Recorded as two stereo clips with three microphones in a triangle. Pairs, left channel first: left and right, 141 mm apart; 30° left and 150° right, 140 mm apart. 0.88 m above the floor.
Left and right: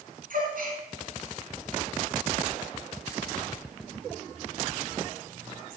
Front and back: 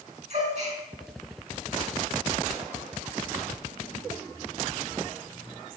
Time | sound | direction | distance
0.3 | a gasp | 110° right | 3 m